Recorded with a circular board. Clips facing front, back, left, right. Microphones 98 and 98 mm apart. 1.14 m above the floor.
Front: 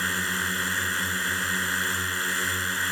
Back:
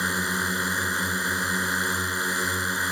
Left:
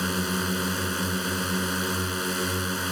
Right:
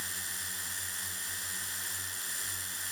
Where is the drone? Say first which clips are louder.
Back 2 dB, left 18 dB; 110° left.